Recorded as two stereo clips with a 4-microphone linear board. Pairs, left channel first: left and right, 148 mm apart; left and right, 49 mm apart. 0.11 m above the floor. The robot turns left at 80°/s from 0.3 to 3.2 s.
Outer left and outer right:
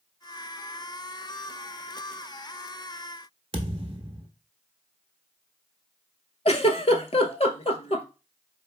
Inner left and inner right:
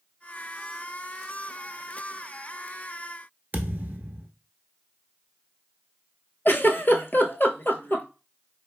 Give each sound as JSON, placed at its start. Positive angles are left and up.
{"t": 3.5, "sound": "a thud", "side_deg": -40, "distance_m": 0.8}
{"t": 6.5, "sound": "a giggle", "side_deg": 50, "distance_m": 0.5}